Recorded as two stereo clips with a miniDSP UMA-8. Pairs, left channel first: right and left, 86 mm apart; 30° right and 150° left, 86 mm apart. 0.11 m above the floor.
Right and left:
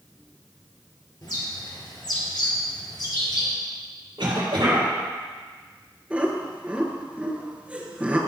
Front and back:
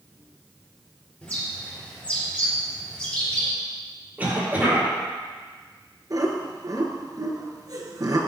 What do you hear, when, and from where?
1.2 s a bird: 100° right, 2.5 m
4.2 s a cough: 80° left, 3.5 m
6.1 s laughter: 160° left, 1.6 m